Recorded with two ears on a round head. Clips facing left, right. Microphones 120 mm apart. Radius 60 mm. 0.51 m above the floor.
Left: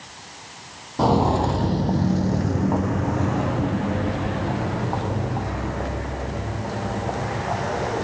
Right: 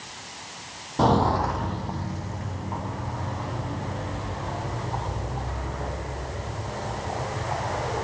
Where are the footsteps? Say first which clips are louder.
Left 2 dB; 5° left (ahead or behind), 0.8 m; by 8.0 s 70° left (ahead or behind), 6 m.